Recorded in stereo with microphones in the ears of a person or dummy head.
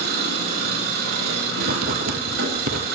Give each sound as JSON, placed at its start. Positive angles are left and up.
{"t": 0.0, "sound": "an engine running", "side_deg": -85, "distance_m": 9.5}
{"t": 1.6, "sound": "writing", "side_deg": -45, "distance_m": 1.1}